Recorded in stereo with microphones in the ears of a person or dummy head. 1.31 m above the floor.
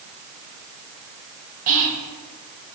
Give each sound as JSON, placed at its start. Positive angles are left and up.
{"t": 1.7, "sound": "whispering", "side_deg": -40, "distance_m": 0.6}